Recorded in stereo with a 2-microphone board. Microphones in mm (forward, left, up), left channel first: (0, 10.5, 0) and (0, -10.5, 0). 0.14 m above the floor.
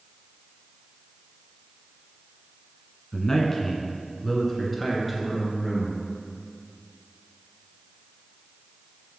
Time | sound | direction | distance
3.1 | a man speaking | 25° left (ahead or behind) | 1.1 m